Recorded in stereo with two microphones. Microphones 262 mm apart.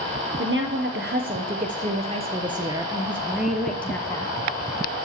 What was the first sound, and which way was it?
A woman speaking, 45° right (ahead or behind).